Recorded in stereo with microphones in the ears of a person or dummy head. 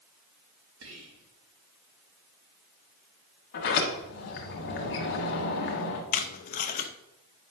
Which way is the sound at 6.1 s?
45° left (ahead or behind).